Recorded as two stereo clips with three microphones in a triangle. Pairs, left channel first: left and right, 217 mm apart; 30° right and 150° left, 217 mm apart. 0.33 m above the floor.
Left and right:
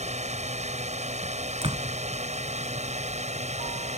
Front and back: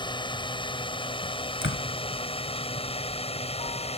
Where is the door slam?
25° right.